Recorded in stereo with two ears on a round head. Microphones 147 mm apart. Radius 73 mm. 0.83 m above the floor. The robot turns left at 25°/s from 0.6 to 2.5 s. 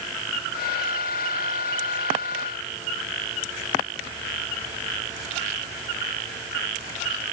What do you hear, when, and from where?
Only background noise.